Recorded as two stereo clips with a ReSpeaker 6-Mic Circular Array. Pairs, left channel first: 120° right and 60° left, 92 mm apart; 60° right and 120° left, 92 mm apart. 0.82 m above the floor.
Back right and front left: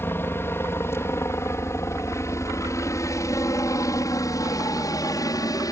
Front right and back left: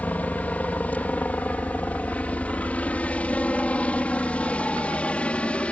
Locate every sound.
0.0 s a helicopter: 110° right; by 5.7 s 130° right